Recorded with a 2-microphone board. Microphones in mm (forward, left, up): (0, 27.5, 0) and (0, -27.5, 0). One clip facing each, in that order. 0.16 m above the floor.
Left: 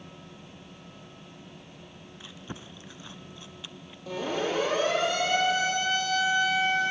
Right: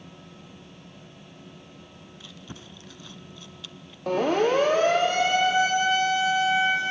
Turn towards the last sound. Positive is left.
turn(degrees=-20)  # may be behind; listen again after turning